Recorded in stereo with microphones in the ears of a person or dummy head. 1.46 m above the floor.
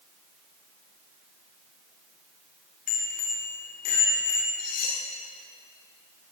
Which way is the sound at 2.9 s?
45° left (ahead or behind).